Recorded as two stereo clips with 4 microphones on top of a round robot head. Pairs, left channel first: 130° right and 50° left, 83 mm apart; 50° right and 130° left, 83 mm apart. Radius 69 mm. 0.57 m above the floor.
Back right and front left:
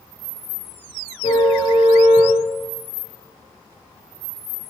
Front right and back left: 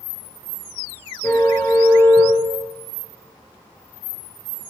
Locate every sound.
1.2 s a car horn: 110° right, 5.5 m